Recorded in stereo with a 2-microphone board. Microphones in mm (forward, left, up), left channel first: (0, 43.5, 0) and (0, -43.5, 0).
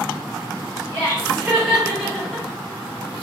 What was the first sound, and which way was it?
Laughter, 25° right (ahead or behind).